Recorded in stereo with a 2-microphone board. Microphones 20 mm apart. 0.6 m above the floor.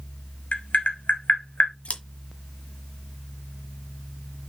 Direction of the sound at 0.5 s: 75° left (ahead or behind).